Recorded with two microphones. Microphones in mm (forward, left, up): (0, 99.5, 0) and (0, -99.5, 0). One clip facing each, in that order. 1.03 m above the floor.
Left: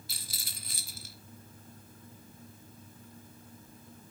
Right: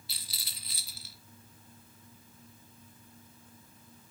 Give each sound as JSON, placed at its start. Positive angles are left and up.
{"t": 0.1, "sound": "a rattle", "side_deg": 50, "distance_m": 1.0}